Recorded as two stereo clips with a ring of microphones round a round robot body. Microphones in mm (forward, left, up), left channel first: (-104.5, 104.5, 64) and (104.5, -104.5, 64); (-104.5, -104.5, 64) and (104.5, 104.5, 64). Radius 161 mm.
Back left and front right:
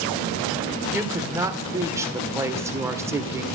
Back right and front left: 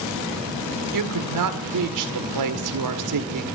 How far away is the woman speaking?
About 1.8 m.